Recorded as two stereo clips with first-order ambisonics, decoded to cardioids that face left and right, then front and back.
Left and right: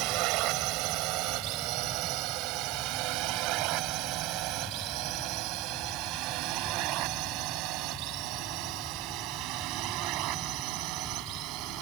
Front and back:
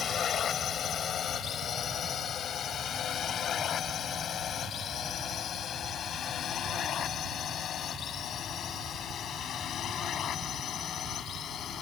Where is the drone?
60° right.